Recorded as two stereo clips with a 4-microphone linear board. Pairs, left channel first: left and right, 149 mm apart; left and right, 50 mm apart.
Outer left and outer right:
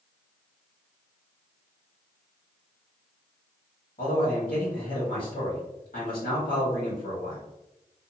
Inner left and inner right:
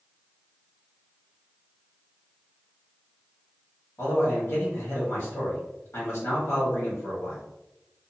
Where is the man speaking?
65° left (ahead or behind), 1.6 m.